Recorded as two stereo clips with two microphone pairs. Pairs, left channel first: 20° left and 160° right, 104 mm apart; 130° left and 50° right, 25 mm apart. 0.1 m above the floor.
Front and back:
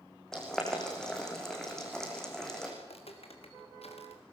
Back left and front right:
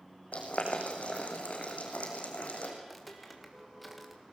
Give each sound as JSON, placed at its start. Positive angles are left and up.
{"t": 0.3, "sound": "boiling", "azimuth_deg": 105, "distance_m": 4.0}
{"t": 2.8, "sound": "footsteps", "azimuth_deg": 40, "distance_m": 4.5}